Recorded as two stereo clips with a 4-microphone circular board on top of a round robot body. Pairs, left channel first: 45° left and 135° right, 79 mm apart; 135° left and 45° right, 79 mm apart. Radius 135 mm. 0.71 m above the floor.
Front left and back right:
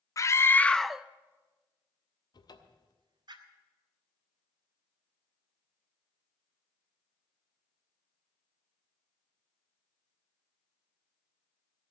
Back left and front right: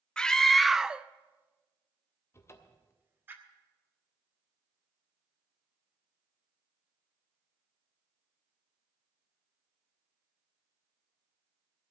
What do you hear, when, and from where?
0.2 s a scream: 60° left, 0.6 m; by 3.3 s 110° right, 1.4 m
2.3 s a cupboard door: 80° left, 1.1 m